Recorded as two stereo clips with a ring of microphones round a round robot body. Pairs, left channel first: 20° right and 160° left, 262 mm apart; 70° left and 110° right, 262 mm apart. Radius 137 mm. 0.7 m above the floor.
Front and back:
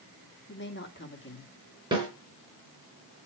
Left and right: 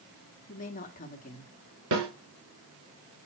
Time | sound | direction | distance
0.5 | a woman speaking | 15° left | 1.8 m
1.9 | a snare drum | 130° right | 4 m